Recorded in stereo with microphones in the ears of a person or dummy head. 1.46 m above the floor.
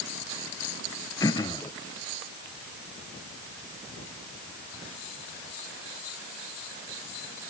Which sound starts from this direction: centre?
Throat clearing, at 1.2 s.